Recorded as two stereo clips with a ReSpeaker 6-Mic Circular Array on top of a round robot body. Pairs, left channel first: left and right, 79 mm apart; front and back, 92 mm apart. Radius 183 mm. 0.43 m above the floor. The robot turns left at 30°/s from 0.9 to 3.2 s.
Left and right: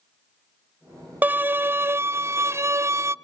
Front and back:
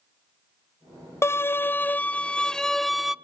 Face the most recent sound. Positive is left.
turn(degrees=-95)